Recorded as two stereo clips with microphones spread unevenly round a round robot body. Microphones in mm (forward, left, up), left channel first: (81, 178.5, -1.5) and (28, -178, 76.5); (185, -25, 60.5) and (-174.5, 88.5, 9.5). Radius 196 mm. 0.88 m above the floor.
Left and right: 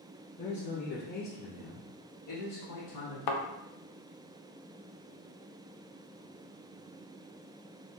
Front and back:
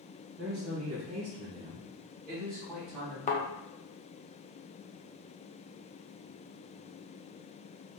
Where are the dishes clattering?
I don't hear dishes clattering.